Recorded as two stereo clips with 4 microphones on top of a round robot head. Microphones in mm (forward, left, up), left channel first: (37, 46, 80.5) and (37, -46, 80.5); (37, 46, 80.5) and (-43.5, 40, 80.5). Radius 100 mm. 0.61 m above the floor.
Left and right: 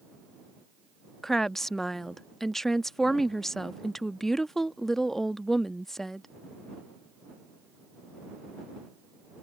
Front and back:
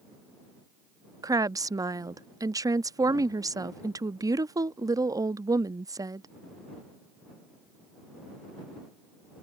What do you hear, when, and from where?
1.2 s a woman speaking: 175° left